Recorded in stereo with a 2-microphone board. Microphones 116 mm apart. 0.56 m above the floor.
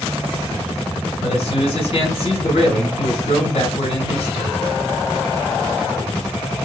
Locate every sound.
1.2 s a man speaking: 55° left (ahead or behind), 1.9 m